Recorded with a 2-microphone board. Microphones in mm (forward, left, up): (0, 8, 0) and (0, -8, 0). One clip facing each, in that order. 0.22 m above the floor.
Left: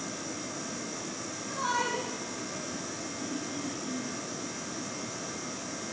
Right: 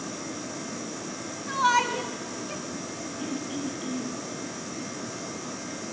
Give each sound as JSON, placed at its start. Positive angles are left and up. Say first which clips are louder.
{"t": 1.5, "sound": "a shout", "louder": "right 8 dB", "side_deg": -55, "distance_m": 2.5}
{"t": 3.2, "sound": "throat clearing", "louder": "right 5 dB", "side_deg": -65, "distance_m": 4.0}